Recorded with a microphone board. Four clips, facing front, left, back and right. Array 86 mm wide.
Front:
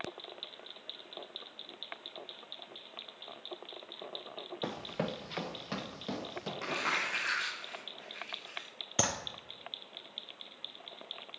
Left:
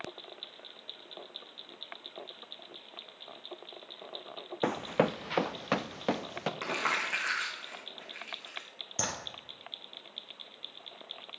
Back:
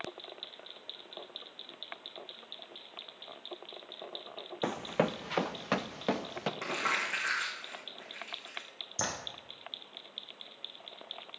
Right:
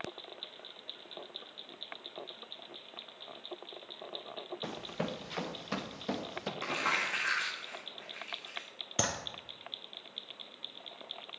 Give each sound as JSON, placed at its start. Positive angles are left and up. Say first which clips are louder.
{"t": 4.6, "sound": "running footsteps", "louder": "left 11 dB, back 6 dB", "azimuth_deg": 105, "distance_m": 0.5}
{"t": 6.6, "sound": "crumpling", "louder": "even, front 1 dB", "azimuth_deg": 95, "distance_m": 6.0}
{"t": 9.0, "sound": "a clap", "louder": "right 2 dB, front 3 dB", "azimuth_deg": -25, "distance_m": 3.0}